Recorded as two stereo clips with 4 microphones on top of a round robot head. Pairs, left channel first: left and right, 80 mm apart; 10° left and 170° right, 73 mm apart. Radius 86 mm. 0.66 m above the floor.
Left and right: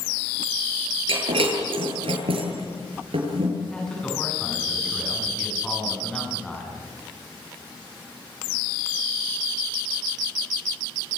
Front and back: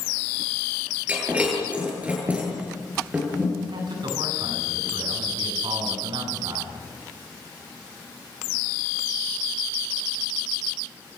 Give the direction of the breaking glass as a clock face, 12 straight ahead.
3 o'clock.